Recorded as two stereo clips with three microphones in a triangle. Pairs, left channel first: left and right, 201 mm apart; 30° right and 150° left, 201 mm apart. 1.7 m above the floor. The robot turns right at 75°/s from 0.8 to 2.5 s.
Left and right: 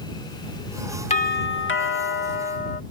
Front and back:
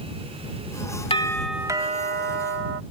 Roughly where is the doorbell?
Ahead left.